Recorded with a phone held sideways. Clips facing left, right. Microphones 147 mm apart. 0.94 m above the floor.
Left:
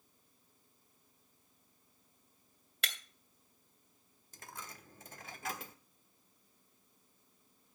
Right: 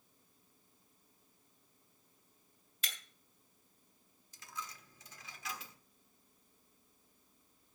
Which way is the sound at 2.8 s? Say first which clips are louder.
Left 5 dB; 70° left (ahead or behind).